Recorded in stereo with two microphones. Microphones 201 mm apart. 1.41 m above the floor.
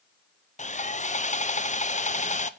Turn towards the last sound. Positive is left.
turn(degrees=40)  # may be behind; listen again after turning